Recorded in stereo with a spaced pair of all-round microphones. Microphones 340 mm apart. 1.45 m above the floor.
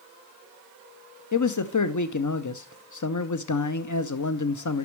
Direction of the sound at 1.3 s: 65° left (ahead or behind).